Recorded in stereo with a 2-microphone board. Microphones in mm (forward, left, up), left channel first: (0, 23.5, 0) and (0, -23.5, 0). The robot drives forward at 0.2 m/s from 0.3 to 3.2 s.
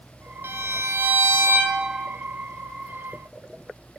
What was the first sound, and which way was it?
A violin, 65° right (ahead or behind).